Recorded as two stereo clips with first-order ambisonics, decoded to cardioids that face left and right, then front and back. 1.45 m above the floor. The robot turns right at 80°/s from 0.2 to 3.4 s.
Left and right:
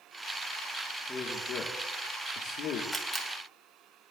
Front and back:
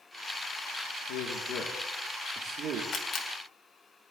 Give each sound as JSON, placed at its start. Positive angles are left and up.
{"t": 1.1, "sound": "a man speaking", "azimuth_deg": 5, "distance_m": 1.2}
{"t": 2.9, "sound": "a camera shutter", "azimuth_deg": -5, "distance_m": 1.2}